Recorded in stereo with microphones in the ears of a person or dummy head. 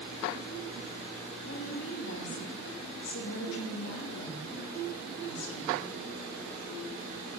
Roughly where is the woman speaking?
Left.